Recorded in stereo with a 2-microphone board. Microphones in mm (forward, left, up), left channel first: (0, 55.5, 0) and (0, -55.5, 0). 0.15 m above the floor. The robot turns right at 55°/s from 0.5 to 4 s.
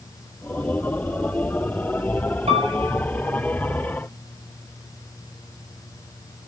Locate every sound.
2.5 s a piano: 70° right (ahead or behind), 4.5 m; by 3.0 s 55° right (ahead or behind), 4.5 m